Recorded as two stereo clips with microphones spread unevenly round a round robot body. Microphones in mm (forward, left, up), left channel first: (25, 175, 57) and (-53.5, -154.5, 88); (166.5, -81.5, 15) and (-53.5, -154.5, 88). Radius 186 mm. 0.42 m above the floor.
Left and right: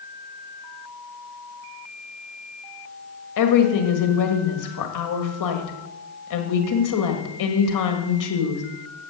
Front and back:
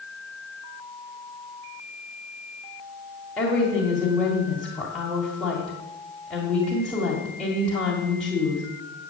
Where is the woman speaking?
100° left, 1.9 m.